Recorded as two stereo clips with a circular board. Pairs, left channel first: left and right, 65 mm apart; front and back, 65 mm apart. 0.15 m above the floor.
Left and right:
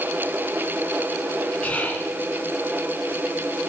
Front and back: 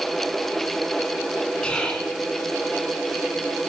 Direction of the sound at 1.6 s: 55° left.